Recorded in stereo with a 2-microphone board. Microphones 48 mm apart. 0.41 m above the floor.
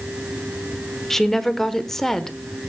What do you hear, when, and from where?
1.1 s a woman speaking: 10° left (ahead or behind), 1.0 m